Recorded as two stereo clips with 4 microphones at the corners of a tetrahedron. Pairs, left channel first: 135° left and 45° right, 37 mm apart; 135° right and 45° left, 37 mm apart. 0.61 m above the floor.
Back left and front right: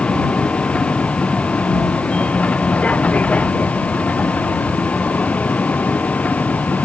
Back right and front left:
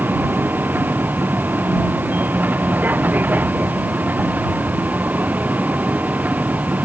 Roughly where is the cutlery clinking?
No cutlery clinking in this recording.